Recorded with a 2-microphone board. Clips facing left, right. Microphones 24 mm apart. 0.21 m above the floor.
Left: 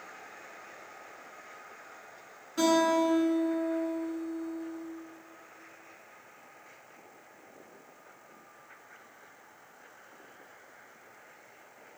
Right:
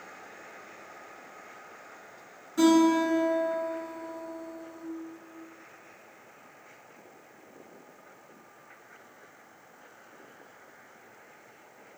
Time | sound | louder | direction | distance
2.6 | a guitar | right 4 dB | 20° left (ahead or behind) | 1.9 m